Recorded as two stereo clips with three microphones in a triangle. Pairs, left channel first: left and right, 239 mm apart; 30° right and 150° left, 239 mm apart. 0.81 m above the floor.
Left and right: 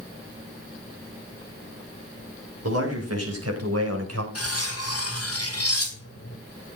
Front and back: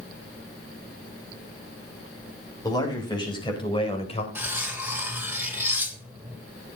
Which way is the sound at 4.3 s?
70° left.